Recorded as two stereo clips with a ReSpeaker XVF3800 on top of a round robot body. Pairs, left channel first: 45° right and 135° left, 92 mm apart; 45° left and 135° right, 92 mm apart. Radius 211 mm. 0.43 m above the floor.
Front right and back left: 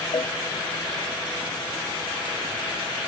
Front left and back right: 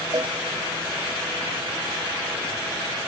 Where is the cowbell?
85° right.